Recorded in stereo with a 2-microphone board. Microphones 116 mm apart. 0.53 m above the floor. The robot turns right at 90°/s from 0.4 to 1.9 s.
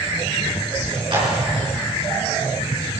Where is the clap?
45° right (ahead or behind), 6.5 m; by 1.3 s 25° right (ahead or behind), 6.5 m.